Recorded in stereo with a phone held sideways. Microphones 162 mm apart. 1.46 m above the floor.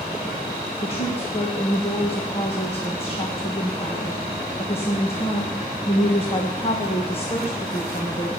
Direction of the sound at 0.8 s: 35° left (ahead or behind).